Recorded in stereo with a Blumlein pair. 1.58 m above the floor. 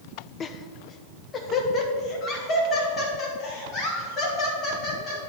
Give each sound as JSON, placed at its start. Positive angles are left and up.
{"t": 0.4, "sound": "laughter", "azimuth_deg": 25, "distance_m": 0.7}